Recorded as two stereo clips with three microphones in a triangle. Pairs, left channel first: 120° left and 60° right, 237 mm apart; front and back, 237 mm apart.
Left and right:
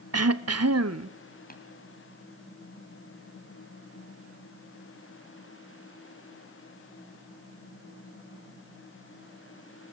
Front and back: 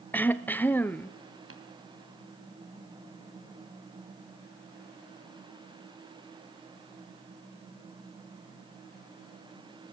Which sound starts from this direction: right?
Throat clearing, at 0.1 s.